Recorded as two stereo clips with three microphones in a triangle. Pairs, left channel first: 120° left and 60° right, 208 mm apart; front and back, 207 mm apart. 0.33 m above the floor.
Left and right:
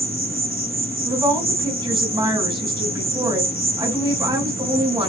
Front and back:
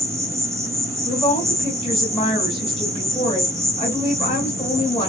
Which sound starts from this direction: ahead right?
A woman speaking, at 1.1 s.